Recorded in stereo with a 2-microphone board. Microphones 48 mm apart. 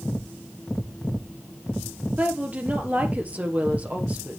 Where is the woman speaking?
30° right (ahead or behind), 2.5 m.